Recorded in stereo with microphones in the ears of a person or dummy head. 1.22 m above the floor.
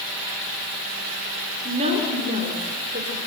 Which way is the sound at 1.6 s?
30° right (ahead or behind).